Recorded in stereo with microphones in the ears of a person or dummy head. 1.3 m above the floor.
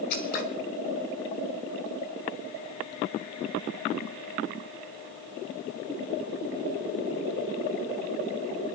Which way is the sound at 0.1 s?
50° left (ahead or behind).